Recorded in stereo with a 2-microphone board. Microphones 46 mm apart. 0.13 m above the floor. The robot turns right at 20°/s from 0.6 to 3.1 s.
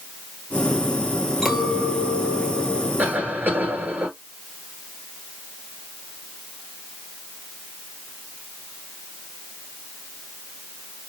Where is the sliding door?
I don't hear a sliding door.